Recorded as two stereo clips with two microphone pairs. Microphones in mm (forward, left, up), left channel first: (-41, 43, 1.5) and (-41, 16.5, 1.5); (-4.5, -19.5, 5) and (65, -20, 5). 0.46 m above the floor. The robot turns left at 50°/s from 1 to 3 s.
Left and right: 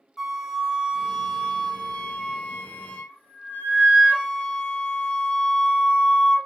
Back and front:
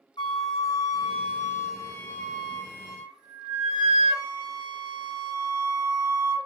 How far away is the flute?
About 1.0 m.